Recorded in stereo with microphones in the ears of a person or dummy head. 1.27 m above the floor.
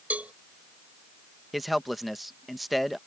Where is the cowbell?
10° right (ahead or behind).